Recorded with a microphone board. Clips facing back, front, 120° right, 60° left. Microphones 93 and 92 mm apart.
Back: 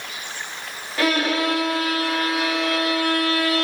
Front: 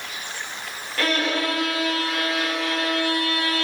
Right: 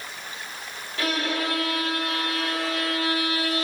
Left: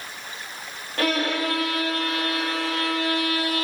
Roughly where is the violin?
Left.